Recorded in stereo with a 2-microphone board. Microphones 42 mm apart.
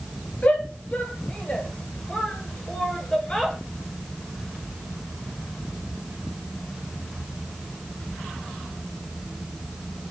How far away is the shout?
About 5.5 m.